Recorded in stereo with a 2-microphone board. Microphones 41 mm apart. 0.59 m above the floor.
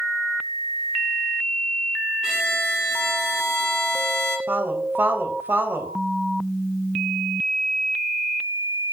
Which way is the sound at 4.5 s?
55° right (ahead or behind).